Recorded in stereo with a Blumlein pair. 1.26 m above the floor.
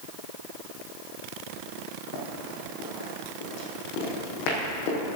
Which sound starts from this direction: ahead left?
Running footsteps, at 2.1 s.